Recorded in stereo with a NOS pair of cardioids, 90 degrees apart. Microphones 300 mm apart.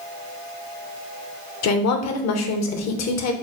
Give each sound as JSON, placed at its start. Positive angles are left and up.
{"t": 1.6, "sound": "a woman speaking", "azimuth_deg": 65, "distance_m": 0.9}